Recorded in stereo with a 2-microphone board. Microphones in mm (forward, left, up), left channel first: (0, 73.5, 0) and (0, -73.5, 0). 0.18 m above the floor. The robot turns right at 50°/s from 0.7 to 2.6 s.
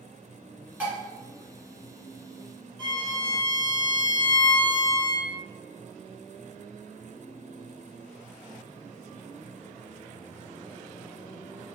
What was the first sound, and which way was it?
Dishes clattering, 10° right (ahead or behind).